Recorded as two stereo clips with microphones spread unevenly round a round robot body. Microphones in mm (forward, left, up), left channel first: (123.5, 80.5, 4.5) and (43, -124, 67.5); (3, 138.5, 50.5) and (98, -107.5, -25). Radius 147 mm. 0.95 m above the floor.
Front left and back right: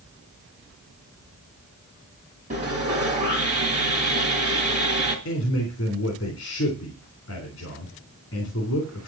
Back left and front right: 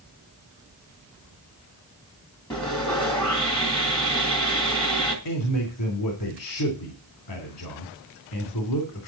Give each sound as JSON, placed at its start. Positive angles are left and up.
{"t": 2.5, "sound": "sawing", "azimuth_deg": -175, "distance_m": 2.5}
{"t": 5.2, "sound": "a man speaking", "azimuth_deg": 105, "distance_m": 3.0}